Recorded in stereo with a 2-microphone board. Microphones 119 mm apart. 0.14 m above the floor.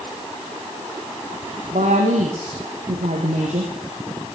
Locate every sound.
1.7 s a woman speaking: 75° right (ahead or behind), 5.5 m